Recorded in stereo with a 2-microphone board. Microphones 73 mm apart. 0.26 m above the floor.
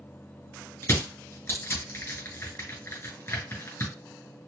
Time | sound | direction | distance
0.8 | crushing | 35° left (ahead or behind) | 2 m